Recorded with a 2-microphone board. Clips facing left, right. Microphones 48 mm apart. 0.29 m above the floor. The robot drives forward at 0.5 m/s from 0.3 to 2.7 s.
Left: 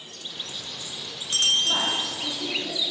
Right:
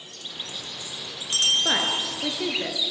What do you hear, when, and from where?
1.6 s a woman speaking: 75° right (ahead or behind), 5 m; by 2.8 s 70° right (ahead or behind), 5 m